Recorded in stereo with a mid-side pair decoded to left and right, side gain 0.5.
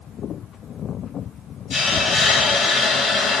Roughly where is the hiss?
Ahead left.